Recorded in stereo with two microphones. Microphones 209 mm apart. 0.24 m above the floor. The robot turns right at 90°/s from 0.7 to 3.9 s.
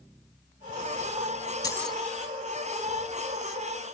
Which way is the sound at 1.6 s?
155° left.